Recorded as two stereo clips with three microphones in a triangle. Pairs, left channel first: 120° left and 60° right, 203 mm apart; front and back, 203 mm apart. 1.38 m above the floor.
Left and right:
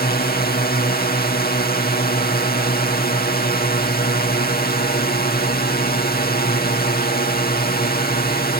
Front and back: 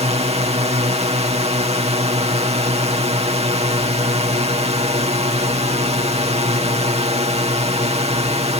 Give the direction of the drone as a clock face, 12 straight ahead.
8 o'clock.